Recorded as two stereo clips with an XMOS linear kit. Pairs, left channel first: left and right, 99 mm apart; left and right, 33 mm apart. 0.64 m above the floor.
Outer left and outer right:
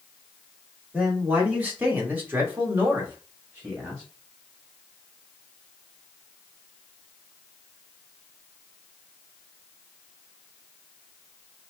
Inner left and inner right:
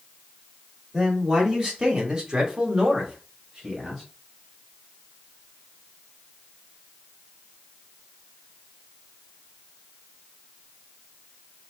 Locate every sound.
0.9 s a man speaking: 15° right (ahead or behind), 1.6 m